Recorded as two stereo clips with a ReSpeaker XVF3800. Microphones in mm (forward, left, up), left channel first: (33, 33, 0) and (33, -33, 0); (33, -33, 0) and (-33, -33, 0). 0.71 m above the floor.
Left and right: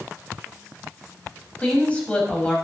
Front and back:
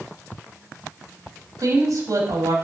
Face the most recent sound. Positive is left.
turn(degrees=160)